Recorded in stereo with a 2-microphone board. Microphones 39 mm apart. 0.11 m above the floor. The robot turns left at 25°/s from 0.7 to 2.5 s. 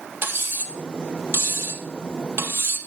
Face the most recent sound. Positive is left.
turn(degrees=-60)  # may be behind; listen again after turning